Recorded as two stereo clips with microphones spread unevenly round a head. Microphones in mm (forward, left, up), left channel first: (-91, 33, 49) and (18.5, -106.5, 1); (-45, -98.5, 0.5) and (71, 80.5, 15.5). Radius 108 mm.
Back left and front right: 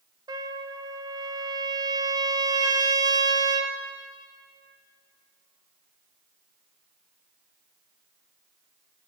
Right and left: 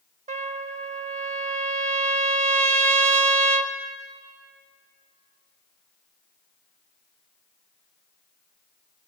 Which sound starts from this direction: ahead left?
A trumpet, at 0.3 s.